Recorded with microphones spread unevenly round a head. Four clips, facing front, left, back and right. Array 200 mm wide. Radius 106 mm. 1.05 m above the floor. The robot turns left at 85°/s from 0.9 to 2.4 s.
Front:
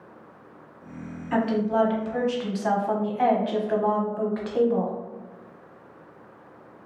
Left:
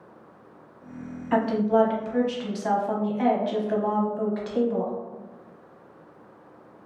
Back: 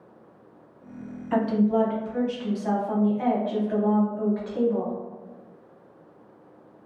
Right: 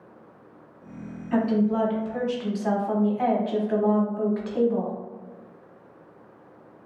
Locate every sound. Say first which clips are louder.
1.3 s a woman speaking: left 1 dB, back 1 dB; 95° left, 1.0 m; by 4.9 s 5° left, 1.0 m